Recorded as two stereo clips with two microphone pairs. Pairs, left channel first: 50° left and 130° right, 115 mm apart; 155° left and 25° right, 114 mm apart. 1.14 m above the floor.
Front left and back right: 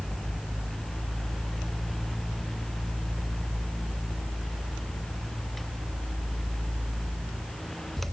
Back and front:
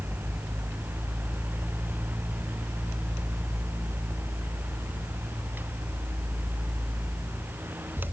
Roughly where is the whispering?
I don't hear whispering.